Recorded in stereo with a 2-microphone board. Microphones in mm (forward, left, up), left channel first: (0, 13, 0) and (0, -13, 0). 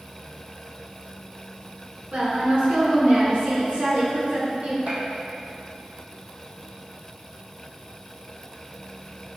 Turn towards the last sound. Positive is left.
turn(degrees=-70)  # may be behind; listen again after turning